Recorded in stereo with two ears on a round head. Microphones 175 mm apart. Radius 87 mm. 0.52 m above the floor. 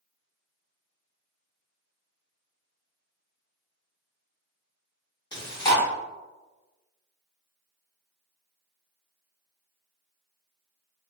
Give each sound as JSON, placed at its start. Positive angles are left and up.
{"t": 5.3, "sound": "chewing", "side_deg": 20, "distance_m": 1.4}